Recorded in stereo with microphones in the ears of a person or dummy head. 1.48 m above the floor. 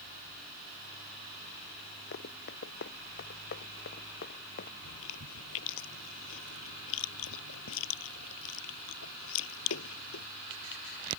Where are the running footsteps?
60° left (ahead or behind); by 4.7 s 55° left (ahead or behind).